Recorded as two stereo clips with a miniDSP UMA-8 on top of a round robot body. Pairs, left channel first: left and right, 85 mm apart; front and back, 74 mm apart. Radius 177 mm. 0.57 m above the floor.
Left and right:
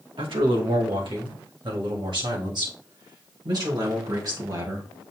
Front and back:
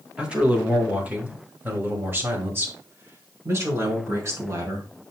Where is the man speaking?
105° right, 3 m; by 4.9 s 135° right, 4.5 m.